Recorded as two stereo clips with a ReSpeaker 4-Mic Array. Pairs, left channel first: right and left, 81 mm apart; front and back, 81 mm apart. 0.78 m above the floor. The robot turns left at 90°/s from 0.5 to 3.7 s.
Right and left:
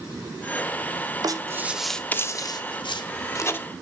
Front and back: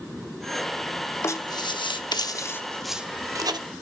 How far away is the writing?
About 0.8 m.